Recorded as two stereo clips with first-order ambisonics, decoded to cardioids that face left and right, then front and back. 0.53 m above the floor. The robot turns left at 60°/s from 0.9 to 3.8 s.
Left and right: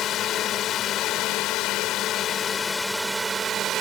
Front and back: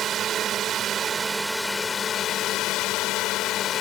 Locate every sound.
0.0 s a drone: 130° left; by 3.8 s 45° right